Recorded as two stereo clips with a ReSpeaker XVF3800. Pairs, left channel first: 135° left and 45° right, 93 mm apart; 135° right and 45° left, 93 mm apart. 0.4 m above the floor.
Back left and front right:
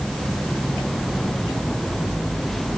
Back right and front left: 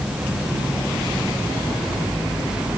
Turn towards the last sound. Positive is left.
No sound to turn to.